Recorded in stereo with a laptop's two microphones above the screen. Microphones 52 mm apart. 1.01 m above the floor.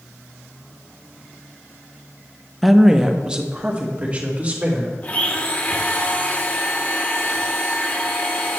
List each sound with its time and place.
2.6 s a woman speaking: centre (ahead or behind), 0.7 m; by 4.9 s 30° right (ahead or behind), 2.5 m
5.0 s a blender: 30° left (ahead or behind), 0.7 m